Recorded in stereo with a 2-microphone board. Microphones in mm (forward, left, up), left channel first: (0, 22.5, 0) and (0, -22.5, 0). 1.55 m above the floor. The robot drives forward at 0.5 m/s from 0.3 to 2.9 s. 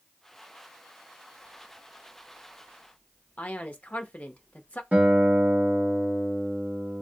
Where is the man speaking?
35° left (ahead or behind), 0.6 m.